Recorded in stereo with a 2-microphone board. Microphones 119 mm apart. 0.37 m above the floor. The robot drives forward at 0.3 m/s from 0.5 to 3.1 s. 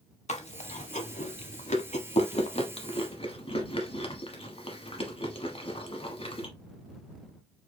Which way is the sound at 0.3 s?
75° left (ahead or behind).